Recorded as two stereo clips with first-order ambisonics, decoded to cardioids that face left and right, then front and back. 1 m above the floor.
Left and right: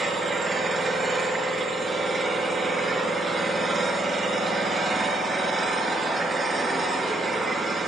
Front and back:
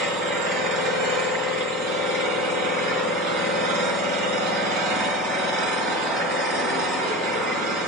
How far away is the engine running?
About 4 m.